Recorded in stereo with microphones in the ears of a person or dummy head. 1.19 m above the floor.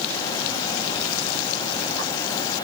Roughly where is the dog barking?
I don't hear a dog barking.